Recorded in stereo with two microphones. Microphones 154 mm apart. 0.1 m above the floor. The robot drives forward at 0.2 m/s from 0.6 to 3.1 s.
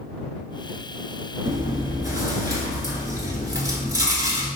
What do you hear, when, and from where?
1.4 s chewing: 25° right (ahead or behind), 0.9 m; by 4.5 s 20° right (ahead or behind), 0.9 m